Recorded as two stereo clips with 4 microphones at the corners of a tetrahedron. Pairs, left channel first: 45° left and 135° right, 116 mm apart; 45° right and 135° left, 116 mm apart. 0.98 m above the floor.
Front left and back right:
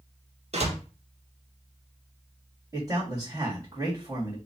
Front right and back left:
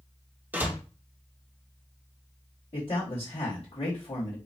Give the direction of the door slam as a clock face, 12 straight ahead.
5 o'clock.